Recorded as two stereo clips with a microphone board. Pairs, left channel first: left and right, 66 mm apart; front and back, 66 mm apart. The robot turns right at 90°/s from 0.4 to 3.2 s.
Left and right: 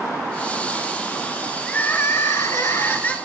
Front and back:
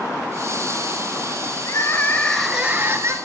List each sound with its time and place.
1.7 s crying: 20° left, 1.3 m; by 3.2 s 155° left, 1.3 m